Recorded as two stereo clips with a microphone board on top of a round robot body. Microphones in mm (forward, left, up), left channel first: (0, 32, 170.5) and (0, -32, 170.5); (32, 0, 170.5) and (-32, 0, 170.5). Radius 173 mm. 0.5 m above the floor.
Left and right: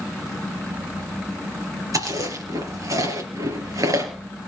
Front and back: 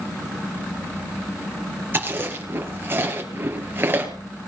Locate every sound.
1.9 s chewing: 120° right, 4 m